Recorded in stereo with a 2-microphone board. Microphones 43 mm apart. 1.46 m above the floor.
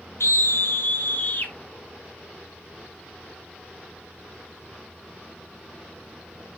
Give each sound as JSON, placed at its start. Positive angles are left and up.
{"t": 0.2, "sound": "a scream", "side_deg": 85, "distance_m": 1.0}